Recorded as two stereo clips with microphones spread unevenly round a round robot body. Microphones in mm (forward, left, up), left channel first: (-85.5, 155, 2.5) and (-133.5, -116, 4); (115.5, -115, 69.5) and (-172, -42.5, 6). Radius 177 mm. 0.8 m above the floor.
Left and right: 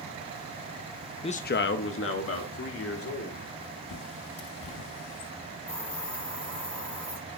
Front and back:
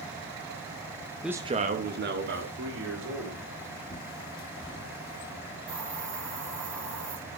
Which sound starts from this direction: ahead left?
A bird, at 3.9 s.